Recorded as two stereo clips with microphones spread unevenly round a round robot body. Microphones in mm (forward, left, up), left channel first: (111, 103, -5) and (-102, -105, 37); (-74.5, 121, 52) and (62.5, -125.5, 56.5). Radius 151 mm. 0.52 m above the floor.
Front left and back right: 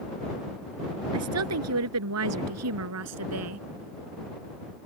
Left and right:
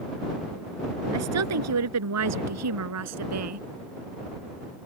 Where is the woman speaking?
95° right.